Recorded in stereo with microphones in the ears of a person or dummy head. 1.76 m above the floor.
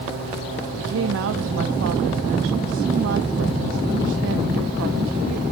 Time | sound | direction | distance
0.8 | a woman speaking | 75° right (ahead or behind) | 0.6 m